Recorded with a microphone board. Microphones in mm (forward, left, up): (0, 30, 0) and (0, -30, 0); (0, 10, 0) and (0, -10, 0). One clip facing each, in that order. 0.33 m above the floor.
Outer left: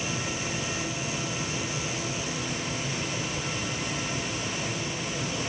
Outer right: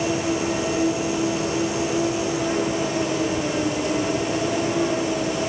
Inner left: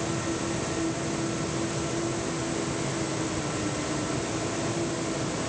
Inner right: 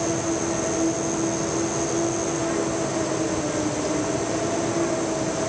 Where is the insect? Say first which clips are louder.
Outer right 10 dB, inner right 5 dB; 65° right (ahead or behind).